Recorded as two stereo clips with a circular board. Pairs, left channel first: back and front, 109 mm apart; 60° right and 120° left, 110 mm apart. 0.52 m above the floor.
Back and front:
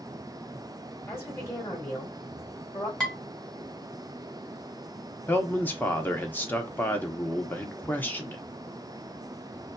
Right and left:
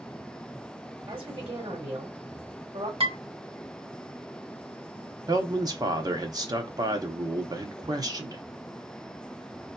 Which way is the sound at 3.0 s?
95° left.